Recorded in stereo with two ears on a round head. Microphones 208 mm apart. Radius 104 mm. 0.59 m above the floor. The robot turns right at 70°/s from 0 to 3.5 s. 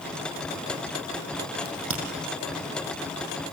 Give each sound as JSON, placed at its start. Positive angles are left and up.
{"t": 1.6, "sound": "a crack", "side_deg": -45, "distance_m": 6.0}